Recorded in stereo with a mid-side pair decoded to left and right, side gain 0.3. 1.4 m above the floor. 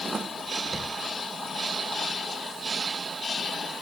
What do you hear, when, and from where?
0.7 s footsteps: 45° right, 6 m